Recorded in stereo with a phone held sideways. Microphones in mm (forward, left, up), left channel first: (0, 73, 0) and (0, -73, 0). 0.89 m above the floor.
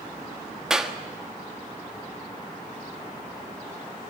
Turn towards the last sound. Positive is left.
turn(degrees=-5)  # may be behind; listen again after turning